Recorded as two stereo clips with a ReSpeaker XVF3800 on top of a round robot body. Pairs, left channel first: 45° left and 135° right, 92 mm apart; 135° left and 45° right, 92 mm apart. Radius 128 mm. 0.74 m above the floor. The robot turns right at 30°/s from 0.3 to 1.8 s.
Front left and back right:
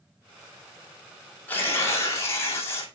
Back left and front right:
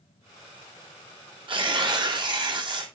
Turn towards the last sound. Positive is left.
turn(degrees=-15)